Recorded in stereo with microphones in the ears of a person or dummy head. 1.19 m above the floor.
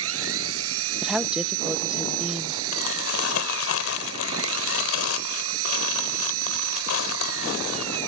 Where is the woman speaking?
5° right (ahead or behind).